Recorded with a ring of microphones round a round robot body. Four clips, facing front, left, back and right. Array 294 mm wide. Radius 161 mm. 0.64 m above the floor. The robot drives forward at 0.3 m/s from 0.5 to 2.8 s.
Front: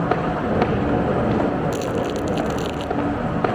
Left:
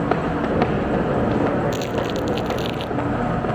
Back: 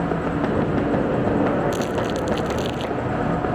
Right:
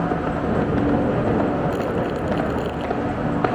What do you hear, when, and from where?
1.7 s crumpling: 95° left